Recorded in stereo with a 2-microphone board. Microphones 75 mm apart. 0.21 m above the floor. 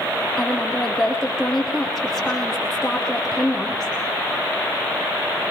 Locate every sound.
0.4 s a woman speaking: centre (ahead or behind), 6.5 m